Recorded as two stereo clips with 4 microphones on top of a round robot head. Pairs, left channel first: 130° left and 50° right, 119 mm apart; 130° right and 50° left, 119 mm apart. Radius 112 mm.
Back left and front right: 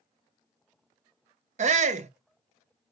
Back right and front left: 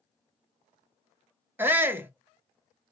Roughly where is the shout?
Ahead right.